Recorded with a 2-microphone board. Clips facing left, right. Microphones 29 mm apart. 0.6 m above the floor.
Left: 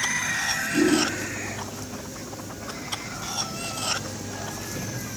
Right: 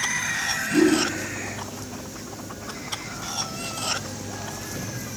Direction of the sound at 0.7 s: 60° right (ahead or behind).